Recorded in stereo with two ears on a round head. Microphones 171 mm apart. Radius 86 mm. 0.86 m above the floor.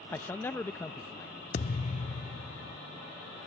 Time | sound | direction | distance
0.1 | a man speaking | 10° left (ahead or behind) | ?
1.5 | a thud | 35° left (ahead or behind) | ?